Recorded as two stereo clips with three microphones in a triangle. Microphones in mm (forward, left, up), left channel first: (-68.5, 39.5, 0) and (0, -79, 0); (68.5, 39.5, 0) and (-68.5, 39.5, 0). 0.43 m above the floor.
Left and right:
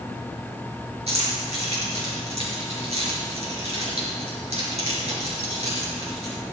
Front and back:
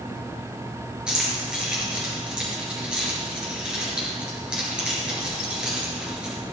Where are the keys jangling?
95° right, 5 m.